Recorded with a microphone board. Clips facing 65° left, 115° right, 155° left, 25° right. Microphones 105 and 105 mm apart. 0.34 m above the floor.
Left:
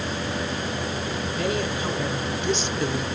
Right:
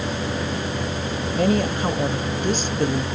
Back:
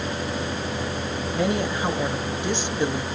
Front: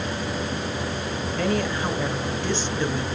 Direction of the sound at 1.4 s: 135° right.